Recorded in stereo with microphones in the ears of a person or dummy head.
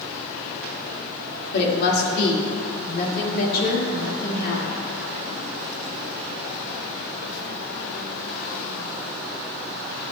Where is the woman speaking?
60° left (ahead or behind), 1.8 m.